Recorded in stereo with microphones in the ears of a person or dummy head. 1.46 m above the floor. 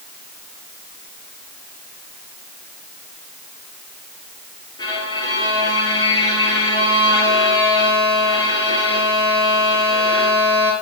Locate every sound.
4.8 s a violin: 30° left (ahead or behind), 4.5 m